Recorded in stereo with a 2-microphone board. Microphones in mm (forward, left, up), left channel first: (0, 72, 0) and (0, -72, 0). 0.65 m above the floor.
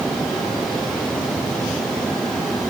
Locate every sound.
Only background noise.